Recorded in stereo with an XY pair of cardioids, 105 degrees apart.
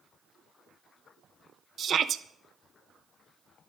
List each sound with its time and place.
1.8 s a shout: 50° right, 0.9 m